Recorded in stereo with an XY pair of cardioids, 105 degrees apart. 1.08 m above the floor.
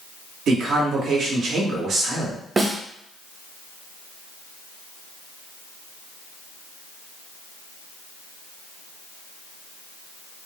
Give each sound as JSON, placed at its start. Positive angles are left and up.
{"t": 0.5, "sound": "a man speaking", "azimuth_deg": -65, "distance_m": 1.1}
{"t": 2.6, "sound": "a snare drum", "azimuth_deg": -25, "distance_m": 0.6}